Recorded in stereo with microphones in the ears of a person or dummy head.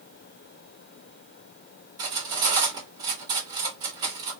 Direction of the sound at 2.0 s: 25° right (ahead or behind).